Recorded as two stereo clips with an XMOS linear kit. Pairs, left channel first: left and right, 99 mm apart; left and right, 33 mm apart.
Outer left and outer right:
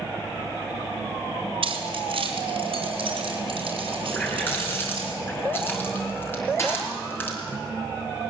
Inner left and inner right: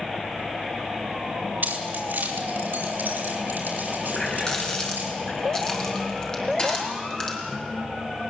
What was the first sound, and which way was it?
Keys jangling, 65° right (ahead or behind).